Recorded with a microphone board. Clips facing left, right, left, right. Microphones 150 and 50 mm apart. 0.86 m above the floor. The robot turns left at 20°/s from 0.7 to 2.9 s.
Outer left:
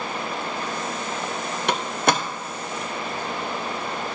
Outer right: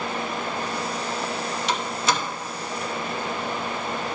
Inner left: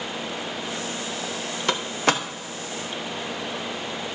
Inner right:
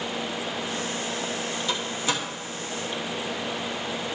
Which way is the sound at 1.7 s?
60° left (ahead or behind).